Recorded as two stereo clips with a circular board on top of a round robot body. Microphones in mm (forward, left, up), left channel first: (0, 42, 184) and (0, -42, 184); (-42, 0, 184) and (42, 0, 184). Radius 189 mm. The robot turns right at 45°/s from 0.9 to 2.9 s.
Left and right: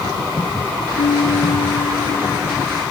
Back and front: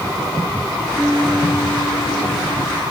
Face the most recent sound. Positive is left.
turn(degrees=175)